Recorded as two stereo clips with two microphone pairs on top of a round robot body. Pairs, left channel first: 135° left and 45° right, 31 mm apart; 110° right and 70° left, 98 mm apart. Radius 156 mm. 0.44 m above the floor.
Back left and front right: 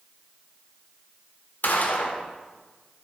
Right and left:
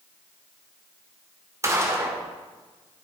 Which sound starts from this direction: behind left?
A gunshot, at 1.6 s.